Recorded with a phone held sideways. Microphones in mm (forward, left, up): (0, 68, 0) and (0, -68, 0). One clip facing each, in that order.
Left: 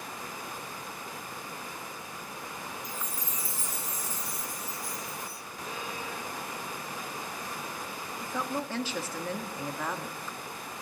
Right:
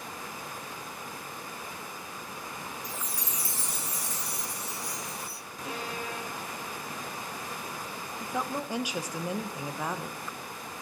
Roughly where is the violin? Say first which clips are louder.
Right 2 dB; right.